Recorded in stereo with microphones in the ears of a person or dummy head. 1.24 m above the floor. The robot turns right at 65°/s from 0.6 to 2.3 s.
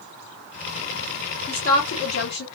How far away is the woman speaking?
About 1.3 m.